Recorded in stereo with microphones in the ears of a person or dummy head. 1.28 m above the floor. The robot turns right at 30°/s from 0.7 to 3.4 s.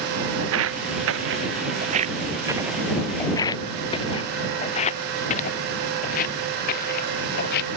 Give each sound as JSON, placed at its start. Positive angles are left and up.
{"t": 0.4, "sound": "footsteps", "side_deg": -75}